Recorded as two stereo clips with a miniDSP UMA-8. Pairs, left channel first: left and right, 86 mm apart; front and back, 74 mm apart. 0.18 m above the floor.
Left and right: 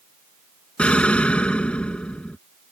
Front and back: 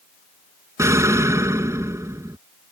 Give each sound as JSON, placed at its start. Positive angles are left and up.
{"t": 0.8, "sound": "an explosion", "azimuth_deg": 160}